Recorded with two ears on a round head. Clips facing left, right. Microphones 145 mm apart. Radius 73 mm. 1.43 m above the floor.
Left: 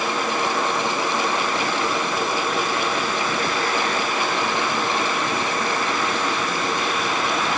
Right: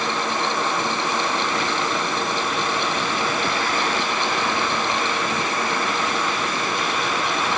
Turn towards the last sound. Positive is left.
No sound to turn to.